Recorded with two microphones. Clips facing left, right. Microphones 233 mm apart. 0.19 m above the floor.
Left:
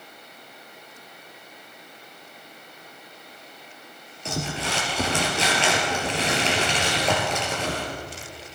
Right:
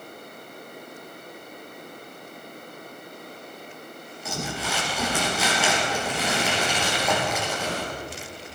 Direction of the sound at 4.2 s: 30° left (ahead or behind).